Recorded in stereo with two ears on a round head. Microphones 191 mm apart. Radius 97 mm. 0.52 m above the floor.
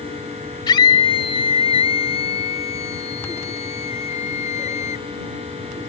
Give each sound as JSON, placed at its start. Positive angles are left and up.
{"t": 0.7, "sound": "a scream", "side_deg": 20}